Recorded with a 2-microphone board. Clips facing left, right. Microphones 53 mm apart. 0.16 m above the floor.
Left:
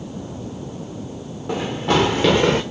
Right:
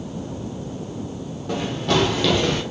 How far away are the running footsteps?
About 1.5 m.